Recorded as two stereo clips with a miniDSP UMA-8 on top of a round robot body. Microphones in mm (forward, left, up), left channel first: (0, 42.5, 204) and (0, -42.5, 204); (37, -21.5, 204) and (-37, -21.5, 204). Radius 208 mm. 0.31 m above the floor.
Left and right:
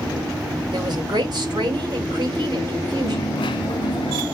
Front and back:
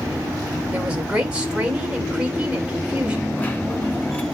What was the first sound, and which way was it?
A woman speaking, 105° right.